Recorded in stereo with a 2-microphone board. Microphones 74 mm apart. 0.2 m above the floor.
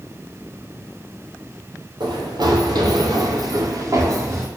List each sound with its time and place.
2.0 s running footsteps: 75° right (ahead or behind), 3 m; by 4.5 s 35° right (ahead or behind), 2.5 m